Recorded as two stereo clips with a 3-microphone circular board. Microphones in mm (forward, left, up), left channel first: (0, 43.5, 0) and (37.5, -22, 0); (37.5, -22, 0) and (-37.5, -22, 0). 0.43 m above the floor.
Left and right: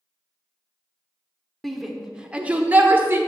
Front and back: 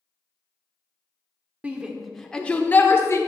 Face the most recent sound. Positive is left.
turn(degrees=-20)